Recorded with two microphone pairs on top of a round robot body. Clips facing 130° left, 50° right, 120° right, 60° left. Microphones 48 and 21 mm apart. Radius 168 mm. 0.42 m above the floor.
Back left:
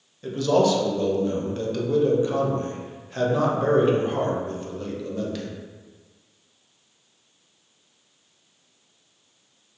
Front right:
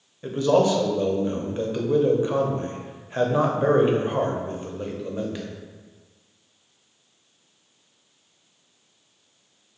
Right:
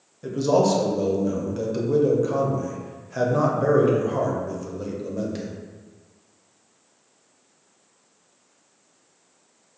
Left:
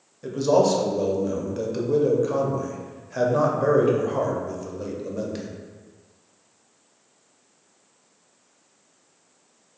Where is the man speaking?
10° right, 0.9 m.